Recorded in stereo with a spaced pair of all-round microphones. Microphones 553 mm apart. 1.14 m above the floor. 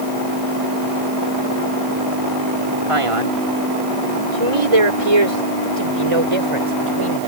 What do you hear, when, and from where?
2.9 s a man speaking: 70° right (ahead or behind); by 7.3 s 65° right (ahead or behind)